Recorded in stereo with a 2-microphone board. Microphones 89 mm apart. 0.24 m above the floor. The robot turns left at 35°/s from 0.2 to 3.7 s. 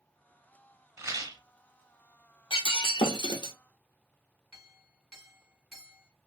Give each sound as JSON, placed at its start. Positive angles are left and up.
{"t": 1.0, "sound": "a rattle", "side_deg": -30, "distance_m": 0.8}
{"t": 2.5, "sound": "breaking glass", "azimuth_deg": 90, "distance_m": 0.8}
{"t": 4.5, "sound": "a clink", "side_deg": 5, "distance_m": 1.5}